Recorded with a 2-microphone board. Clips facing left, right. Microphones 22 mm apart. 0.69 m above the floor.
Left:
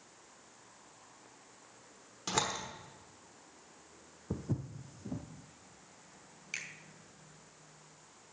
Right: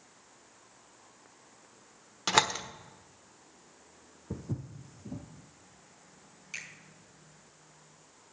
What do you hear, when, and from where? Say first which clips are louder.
2.3 s a door slam: right 8 dB; 50° right (ahead or behind), 1.1 m
4.3 s footsteps: left 1 dB; 15° left (ahead or behind), 1.3 m
6.5 s a finger snap: even; 15° left (ahead or behind), 2.5 m